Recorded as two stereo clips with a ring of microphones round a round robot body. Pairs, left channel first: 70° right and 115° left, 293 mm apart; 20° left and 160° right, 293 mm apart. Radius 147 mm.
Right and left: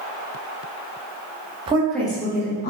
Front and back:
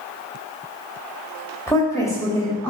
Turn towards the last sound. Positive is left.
turn(degrees=-55)